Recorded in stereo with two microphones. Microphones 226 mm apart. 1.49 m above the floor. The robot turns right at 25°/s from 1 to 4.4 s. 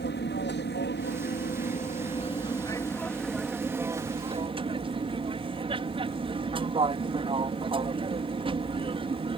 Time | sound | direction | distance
0.0 | an aircraft | 120° left | ?